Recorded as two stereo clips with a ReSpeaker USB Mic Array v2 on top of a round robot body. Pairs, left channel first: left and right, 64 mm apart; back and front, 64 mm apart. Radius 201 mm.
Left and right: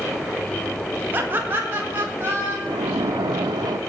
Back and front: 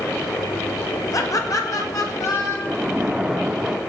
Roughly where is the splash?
Right.